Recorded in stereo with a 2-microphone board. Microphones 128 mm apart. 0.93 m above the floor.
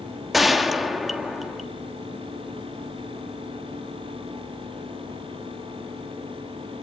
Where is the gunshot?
Centre (ahead or behind), 1.5 m.